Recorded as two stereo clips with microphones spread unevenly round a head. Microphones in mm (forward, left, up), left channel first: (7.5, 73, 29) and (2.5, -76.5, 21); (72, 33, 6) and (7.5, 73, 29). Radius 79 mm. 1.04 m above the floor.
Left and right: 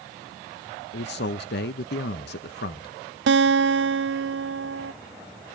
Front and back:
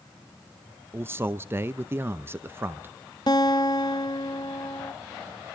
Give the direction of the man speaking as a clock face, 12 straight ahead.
9 o'clock.